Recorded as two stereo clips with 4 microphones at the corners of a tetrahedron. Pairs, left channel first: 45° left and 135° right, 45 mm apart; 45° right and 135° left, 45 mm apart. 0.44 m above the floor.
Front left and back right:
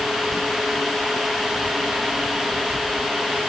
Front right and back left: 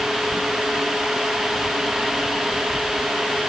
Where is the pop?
No pop in this recording.